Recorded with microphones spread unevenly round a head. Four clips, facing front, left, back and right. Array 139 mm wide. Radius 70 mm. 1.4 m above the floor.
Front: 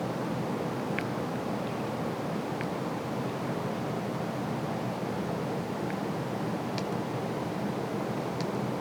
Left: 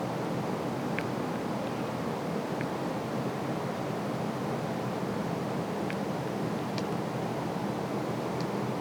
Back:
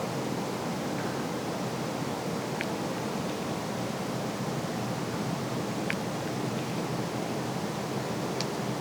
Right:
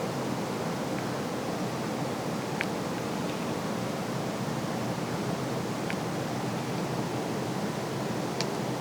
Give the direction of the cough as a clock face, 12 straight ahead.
No cough in this recording.